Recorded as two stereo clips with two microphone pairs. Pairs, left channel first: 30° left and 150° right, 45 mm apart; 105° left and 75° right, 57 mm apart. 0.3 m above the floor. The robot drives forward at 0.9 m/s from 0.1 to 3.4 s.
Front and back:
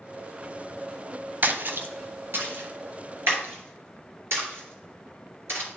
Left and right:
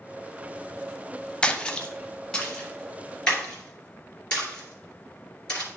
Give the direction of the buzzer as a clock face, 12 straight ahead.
I don't hear a buzzer.